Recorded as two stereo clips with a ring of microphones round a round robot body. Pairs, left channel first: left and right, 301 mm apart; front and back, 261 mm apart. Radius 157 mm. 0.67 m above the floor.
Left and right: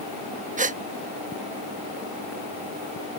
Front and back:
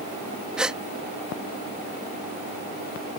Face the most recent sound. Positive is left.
turn(degrees=-95)